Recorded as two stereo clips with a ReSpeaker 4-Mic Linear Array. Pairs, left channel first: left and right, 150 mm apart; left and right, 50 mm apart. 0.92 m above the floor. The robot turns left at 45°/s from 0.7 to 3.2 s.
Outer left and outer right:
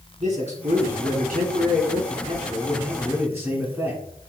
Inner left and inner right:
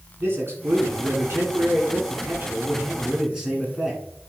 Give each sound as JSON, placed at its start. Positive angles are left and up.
{"t": 0.2, "sound": "a man speaking", "azimuth_deg": -50, "distance_m": 3.0}